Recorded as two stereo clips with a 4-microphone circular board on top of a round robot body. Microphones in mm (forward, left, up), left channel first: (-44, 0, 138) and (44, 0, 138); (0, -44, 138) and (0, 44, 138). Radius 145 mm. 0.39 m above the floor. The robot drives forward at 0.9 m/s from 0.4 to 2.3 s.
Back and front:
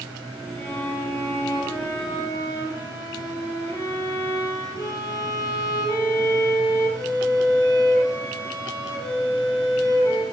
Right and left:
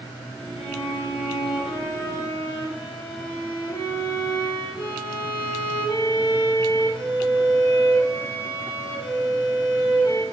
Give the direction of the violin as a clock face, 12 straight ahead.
4 o'clock.